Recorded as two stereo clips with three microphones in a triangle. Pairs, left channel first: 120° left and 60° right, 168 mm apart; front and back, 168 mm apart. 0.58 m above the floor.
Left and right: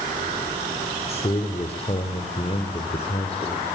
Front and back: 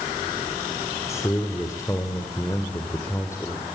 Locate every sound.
1.1 s a man speaking: 70° left, 2 m